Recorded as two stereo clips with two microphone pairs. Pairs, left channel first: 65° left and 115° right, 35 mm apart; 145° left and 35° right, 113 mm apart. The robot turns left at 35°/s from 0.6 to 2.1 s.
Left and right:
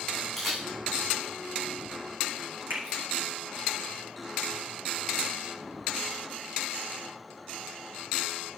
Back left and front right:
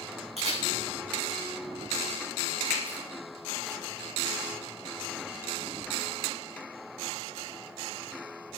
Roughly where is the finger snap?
Behind right.